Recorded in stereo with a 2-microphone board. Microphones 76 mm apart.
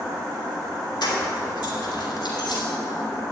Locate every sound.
1.0 s keys jangling: 80° left, 2.5 m; by 2.6 s 75° left (ahead or behind), 3 m